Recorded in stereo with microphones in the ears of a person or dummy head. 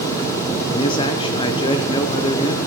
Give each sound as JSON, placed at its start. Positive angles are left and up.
{"t": 0.7, "sound": "a man speaking", "side_deg": 25, "distance_m": 0.9}